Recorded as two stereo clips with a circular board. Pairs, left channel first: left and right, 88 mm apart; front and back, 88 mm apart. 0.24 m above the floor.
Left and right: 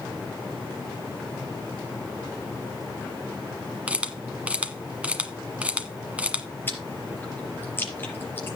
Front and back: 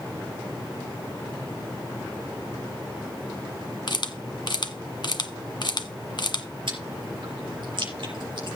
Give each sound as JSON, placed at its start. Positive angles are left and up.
{"t": 3.9, "sound": "a camera shutter", "azimuth_deg": -15, "distance_m": 1.2}
{"t": 6.7, "sound": "chewing", "azimuth_deg": 155, "distance_m": 4.0}